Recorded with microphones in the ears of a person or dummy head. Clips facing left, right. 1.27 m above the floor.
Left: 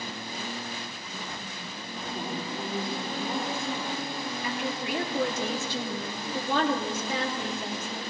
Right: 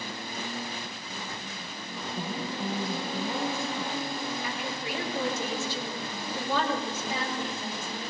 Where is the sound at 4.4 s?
65° left (ahead or behind), 2.5 m.